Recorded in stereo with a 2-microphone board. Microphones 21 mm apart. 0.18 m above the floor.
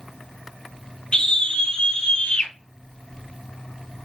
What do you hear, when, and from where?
1.1 s a scream: 55° left (ahead or behind), 4 m; by 2.5 s 70° left (ahead or behind), 4.5 m